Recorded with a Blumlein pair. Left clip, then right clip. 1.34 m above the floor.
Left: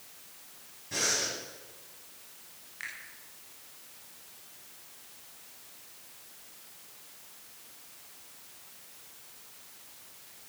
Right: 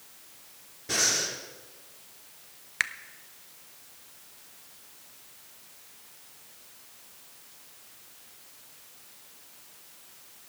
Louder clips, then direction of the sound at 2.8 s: Right 12 dB; 50° right.